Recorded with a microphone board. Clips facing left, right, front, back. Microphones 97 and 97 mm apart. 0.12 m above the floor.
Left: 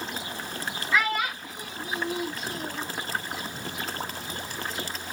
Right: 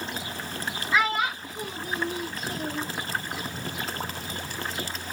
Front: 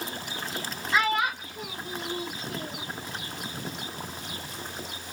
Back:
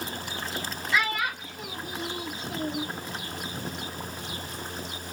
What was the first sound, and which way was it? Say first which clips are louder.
A child speaking: right 1 dB, front 3 dB; 35° right.